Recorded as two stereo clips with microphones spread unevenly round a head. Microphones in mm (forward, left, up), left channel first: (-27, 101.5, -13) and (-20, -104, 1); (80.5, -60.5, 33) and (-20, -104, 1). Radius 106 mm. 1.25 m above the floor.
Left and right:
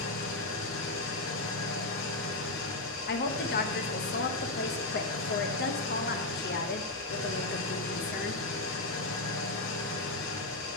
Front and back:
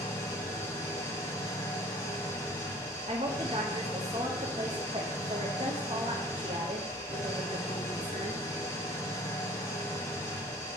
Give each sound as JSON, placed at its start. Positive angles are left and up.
{"t": 0.0, "sound": "an engine running", "azimuth_deg": 75, "distance_m": 1.6}
{"t": 3.1, "sound": "a woman speaking", "azimuth_deg": 135, "distance_m": 1.0}